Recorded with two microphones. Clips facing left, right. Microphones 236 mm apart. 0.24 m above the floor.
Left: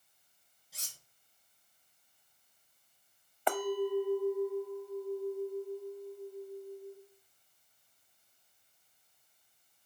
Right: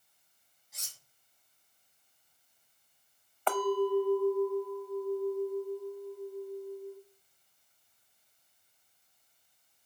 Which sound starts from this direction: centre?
A clink, at 3.5 s.